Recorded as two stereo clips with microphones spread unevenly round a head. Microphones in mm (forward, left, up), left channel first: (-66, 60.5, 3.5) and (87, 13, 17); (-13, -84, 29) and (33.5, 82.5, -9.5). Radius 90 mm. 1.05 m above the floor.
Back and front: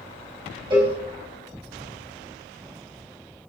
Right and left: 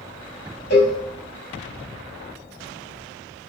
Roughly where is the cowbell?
Right.